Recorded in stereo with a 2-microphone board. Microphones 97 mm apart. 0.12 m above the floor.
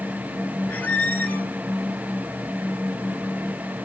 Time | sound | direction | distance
0.7 | a squeak | 20° left (ahead or behind) | 0.7 m